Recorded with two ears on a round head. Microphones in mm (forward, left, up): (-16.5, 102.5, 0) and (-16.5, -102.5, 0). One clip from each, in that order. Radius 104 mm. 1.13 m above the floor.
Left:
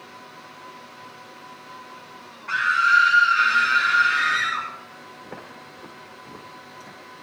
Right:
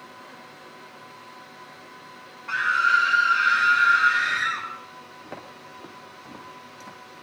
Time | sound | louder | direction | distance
2.5 | a scream | left 2 dB | centre (ahead or behind) | 1.0 m
5.2 | footsteps | even | 30° right (ahead or behind) | 3.5 m